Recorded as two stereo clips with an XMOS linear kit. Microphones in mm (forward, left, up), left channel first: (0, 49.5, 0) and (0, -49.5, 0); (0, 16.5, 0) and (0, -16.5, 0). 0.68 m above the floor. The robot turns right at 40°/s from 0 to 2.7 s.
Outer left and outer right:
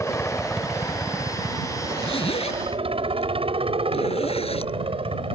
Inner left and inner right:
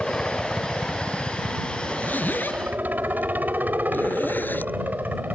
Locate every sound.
0.0 s a helicopter: 20° left (ahead or behind); by 5.4 s 65° right (ahead or behind)
1.9 s a zipper: 60° left (ahead or behind); by 4.7 s 85° left